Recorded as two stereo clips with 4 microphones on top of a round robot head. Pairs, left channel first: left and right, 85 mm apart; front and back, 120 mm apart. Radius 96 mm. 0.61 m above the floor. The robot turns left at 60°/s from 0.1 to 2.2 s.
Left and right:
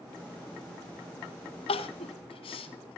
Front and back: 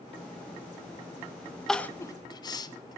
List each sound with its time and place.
1.7 s crying: 85° left, 1.4 m; by 3.0 s 55° left, 1.4 m